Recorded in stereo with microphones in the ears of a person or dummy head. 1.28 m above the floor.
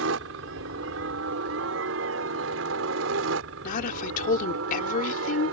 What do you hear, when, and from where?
0.0 s a helicopter: 70° right (ahead or behind)
3.6 s a woman speaking: 50° left (ahead or behind)